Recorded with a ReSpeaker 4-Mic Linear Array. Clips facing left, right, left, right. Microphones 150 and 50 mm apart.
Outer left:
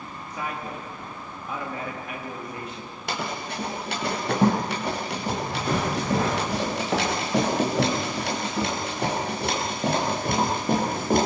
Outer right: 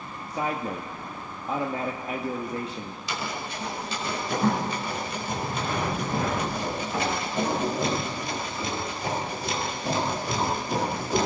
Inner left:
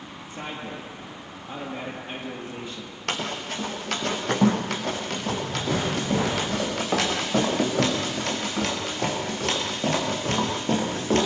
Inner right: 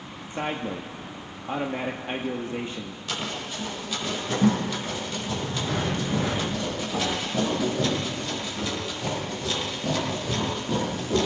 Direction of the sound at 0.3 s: 35° right (ahead or behind).